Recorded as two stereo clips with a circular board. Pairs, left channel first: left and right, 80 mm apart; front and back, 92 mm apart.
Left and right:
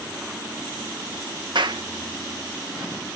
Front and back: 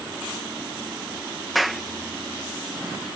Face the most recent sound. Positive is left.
turn(degrees=-90)